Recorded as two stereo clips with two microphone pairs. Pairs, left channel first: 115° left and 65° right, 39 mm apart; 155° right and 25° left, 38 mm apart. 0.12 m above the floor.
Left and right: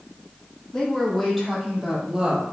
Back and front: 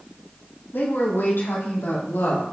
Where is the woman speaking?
160° right, 4 m; by 2.4 s 125° right, 3.5 m.